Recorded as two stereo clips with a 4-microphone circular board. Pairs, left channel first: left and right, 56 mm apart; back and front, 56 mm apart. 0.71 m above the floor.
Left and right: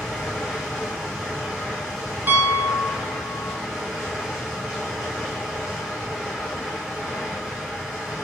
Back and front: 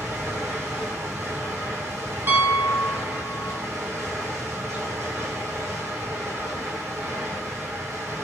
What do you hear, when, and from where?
0.0 s running water: straight ahead, 2.5 m
2.3 s a piano: 40° right, 0.8 m